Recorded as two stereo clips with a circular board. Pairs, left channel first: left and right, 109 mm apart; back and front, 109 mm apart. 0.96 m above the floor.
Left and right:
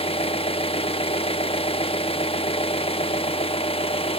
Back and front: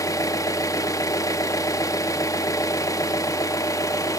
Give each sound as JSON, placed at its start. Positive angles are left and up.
{"t": 0.0, "sound": "an engine running", "azimuth_deg": 120, "distance_m": 0.9}